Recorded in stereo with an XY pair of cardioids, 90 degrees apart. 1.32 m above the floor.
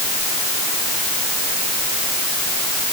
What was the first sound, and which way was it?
Only background noise.